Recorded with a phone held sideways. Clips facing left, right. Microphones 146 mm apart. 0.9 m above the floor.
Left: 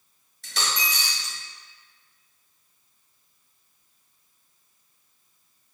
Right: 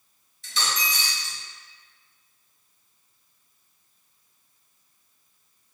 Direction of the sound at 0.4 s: 70° left (ahead or behind).